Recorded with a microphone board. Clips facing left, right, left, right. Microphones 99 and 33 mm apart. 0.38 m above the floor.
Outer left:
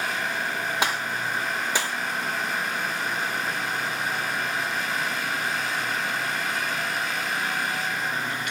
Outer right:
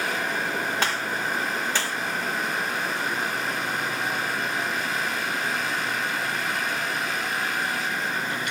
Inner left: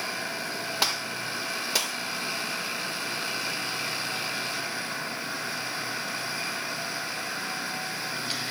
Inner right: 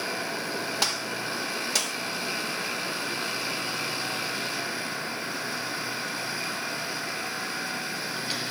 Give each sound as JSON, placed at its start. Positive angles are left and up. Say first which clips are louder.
{"t": 0.8, "sound": "a gunshot", "louder": "even, inner left 3 dB", "side_deg": 10, "distance_m": 0.7}